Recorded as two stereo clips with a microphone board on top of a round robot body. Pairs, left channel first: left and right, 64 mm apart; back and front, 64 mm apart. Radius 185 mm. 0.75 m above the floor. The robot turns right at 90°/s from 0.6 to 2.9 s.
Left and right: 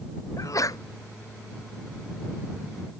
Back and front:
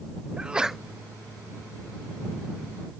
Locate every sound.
0.4 s a sneeze: 75° left; by 0.8 s 90° left